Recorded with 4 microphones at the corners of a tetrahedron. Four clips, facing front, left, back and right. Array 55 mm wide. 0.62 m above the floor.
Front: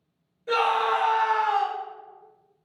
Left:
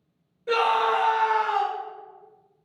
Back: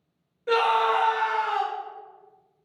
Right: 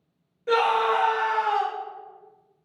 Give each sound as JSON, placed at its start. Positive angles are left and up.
{"t": 0.5, "sound": "a scream", "azimuth_deg": -150, "distance_m": 1.7}